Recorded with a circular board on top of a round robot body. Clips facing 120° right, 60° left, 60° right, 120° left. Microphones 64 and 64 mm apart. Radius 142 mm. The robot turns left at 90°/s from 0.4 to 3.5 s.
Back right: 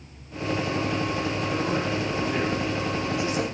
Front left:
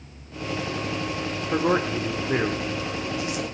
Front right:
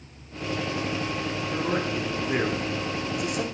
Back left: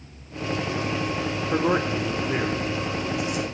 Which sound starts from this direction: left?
A man speaking, at 1.5 s.